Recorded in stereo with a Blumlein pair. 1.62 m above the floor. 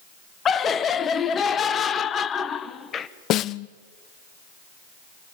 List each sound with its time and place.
0.5 s laughter: 25° left, 1.0 m
3.3 s a snare drum: 35° left, 0.5 m